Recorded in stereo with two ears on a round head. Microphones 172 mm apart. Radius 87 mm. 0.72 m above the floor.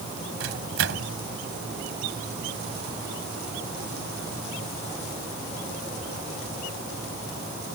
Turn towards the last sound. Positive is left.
turn(degrees=-70)  # may be behind; listen again after turning